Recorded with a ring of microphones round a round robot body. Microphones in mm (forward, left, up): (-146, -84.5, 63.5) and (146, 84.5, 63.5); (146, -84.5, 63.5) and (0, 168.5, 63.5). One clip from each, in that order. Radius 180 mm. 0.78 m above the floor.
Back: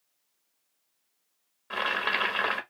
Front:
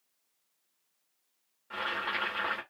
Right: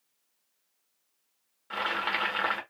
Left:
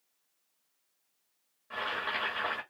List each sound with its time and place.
1.7 s boiling: 110° right, 1.6 m